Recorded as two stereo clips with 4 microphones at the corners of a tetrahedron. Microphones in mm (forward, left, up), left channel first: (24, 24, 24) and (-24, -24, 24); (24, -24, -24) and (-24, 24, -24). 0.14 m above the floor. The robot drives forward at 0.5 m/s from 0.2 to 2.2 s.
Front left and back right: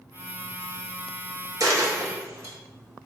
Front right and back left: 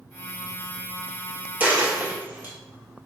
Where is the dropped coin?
160° right, 1.2 m; by 2.5 s 165° right, 1.5 m.